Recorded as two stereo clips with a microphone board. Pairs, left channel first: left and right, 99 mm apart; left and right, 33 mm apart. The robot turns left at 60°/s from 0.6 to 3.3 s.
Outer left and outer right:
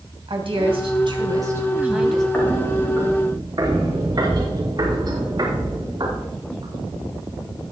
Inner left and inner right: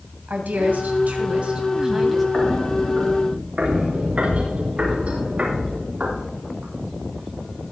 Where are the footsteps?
10° left (ahead or behind), 5.5 m; by 6.7 s 50° right (ahead or behind), 9.5 m.